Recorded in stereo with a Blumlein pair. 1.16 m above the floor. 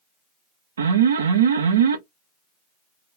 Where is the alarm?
65° right, 0.6 m.